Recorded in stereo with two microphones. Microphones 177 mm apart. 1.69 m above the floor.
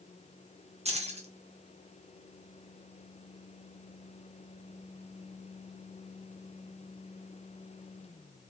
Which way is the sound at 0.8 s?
35° right (ahead or behind).